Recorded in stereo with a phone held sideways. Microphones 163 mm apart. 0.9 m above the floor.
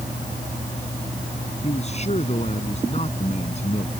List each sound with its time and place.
1.6 s a man speaking: 45° left (ahead or behind)